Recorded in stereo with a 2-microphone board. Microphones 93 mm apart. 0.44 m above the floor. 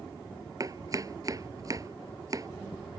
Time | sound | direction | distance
0.6 | chopping | 40° right (ahead or behind) | ?